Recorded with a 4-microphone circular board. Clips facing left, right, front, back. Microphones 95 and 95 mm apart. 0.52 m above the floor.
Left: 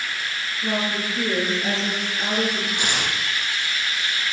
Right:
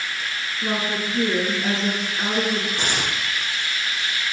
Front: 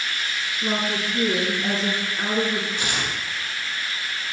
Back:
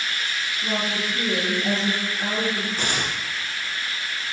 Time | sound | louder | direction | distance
0.6 | a woman speaking | even, front 2 dB | 45° right | 5.5 m
2.8 | tearing paper | even, back 1 dB | 135° right | 4 m